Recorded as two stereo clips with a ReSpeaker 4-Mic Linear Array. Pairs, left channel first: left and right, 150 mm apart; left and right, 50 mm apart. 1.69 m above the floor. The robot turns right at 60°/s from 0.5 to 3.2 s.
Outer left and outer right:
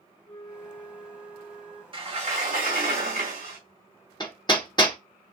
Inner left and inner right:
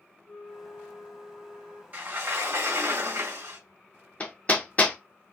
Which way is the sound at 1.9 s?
145° right.